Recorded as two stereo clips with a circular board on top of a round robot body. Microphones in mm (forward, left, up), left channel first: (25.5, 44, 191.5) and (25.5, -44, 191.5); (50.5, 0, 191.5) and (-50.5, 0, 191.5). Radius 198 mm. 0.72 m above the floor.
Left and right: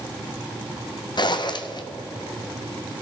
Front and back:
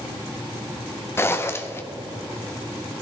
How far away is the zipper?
About 1.2 m.